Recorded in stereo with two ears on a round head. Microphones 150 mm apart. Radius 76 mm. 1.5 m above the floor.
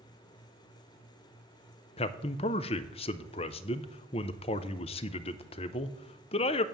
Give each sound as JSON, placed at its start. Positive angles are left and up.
{"t": 2.0, "sound": "a man speaking", "side_deg": 35, "distance_m": 0.5}